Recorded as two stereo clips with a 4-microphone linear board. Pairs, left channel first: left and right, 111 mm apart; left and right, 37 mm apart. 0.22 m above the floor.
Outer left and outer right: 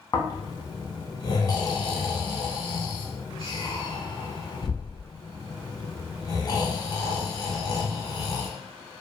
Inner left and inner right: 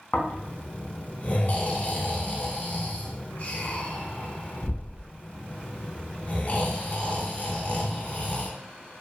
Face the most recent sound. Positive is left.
turn(degrees=35)  # may be behind; listen again after turning